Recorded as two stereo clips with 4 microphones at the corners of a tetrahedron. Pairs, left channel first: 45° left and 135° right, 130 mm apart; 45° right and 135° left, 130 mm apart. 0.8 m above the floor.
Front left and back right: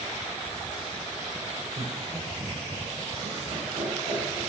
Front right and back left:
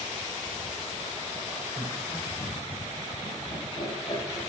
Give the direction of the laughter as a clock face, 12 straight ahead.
4 o'clock.